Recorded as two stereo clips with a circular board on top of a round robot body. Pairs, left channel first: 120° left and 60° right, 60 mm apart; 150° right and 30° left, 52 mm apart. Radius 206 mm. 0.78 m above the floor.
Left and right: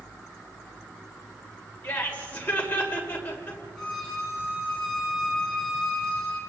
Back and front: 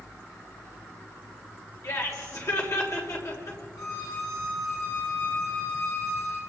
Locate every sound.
1.8 s laughter: 175° right, 4.5 m
3.8 s a violin: 160° right, 7.5 m